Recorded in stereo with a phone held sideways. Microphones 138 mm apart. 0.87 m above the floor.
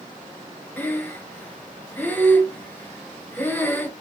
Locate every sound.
0.8 s breathing: 10° left (ahead or behind), 0.7 m